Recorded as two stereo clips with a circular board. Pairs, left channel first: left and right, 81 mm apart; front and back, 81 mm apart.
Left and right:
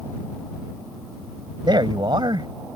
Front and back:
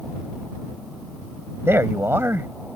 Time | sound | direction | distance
1.6 | a man speaking | 120° right | ?